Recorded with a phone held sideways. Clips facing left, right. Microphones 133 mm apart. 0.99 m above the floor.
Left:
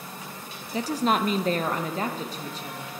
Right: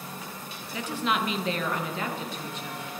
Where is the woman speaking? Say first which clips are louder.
Left 4 dB; 35° left (ahead or behind), 0.6 m.